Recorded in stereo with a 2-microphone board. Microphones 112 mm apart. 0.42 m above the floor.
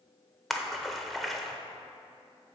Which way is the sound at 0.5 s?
Centre (ahead or behind).